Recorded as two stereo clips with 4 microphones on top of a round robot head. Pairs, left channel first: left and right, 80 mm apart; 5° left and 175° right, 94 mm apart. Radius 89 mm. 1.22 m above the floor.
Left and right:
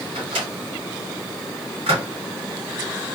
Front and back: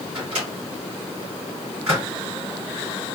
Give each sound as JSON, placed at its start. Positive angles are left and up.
{"t": 0.1, "sound": "a microwave", "azimuth_deg": -100, "distance_m": 2.5}